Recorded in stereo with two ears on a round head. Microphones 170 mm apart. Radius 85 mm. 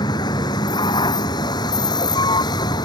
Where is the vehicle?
20° left (ahead or behind).